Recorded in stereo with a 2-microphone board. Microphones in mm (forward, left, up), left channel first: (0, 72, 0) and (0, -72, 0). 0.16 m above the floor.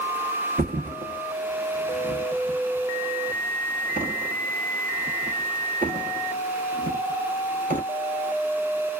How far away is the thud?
About 0.8 m.